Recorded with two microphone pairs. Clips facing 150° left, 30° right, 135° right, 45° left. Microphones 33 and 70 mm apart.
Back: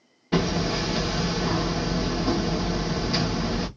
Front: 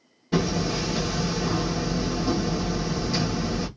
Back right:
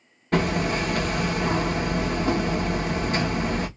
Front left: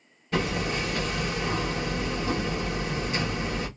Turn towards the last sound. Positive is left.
turn(degrees=-140)